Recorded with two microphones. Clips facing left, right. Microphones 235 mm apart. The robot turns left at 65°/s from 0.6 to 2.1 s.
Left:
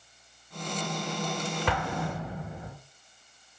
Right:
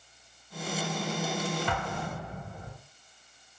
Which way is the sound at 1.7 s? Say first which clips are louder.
Left 3 dB; 70° left (ahead or behind).